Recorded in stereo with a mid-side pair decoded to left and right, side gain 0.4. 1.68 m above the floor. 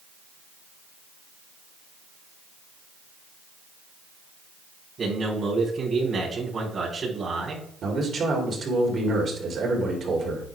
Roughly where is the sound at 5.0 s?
Ahead right.